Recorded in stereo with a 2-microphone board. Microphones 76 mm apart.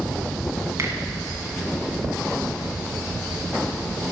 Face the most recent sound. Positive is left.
turn(degrees=-35)  # may be behind; listen again after turning